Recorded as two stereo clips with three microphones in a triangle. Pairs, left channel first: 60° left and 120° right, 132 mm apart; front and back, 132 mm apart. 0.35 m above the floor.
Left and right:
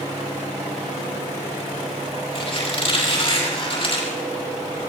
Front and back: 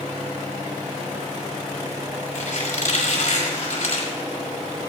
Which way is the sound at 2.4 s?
20° left.